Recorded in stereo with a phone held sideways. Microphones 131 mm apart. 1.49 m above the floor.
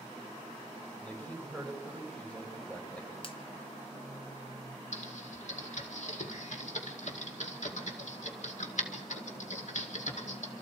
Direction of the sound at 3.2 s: 45° left (ahead or behind).